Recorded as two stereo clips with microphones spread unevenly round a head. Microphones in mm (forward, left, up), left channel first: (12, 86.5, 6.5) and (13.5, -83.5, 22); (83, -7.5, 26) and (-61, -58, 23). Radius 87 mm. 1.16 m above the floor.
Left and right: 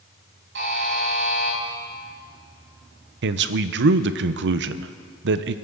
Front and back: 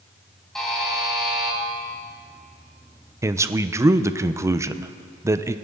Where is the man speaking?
90° right, 0.6 m.